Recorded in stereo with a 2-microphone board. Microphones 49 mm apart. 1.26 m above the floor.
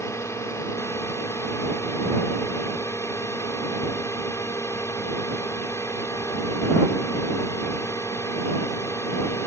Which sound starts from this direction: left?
A drone, at 0.0 s.